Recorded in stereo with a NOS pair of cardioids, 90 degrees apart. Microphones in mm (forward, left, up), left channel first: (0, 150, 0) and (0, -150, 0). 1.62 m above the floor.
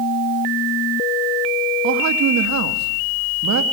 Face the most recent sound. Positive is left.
turn(degrees=-70)